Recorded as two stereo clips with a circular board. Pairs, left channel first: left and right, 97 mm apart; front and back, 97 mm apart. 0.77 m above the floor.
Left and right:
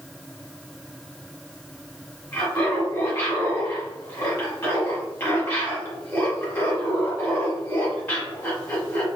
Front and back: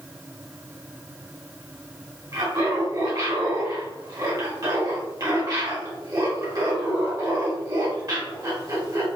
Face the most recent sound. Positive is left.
turn(degrees=155)